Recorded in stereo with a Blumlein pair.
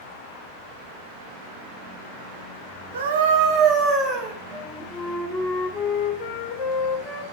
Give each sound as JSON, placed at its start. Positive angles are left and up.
{"t": 2.9, "sound": "a scream", "azimuth_deg": -65, "distance_m": 1.4}
{"t": 4.5, "sound": "a flute", "azimuth_deg": 25, "distance_m": 1.2}